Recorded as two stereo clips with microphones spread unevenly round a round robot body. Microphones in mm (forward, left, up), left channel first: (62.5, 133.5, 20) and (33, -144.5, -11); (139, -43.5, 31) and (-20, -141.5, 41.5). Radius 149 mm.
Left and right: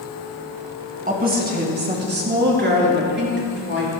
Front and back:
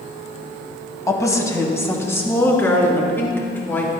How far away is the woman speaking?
About 2.0 m.